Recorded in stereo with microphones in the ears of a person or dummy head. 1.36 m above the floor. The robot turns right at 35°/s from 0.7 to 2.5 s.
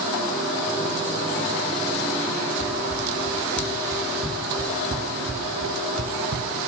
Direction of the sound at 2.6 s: 25° left (ahead or behind).